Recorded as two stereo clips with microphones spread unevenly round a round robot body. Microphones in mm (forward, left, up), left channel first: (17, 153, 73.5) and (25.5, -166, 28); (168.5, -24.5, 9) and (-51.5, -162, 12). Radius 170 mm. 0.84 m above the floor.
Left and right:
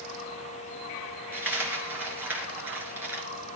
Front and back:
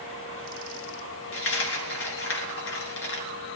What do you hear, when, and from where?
1.3 s a dropped coin: straight ahead, 3 m